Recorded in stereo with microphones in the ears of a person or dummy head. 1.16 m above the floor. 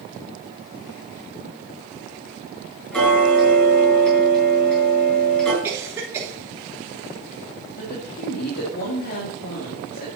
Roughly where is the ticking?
Centre.